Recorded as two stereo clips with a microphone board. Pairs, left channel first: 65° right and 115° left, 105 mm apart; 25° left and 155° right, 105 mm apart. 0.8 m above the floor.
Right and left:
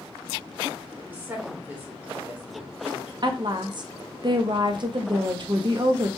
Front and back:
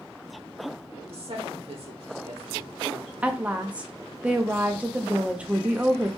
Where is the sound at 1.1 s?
175° right, 1.8 m.